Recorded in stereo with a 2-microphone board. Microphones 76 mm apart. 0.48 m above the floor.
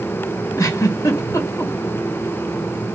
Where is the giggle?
50° left (ahead or behind), 2.5 m.